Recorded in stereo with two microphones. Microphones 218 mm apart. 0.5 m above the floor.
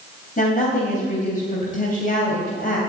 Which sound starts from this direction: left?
A woman speaking, at 0.4 s.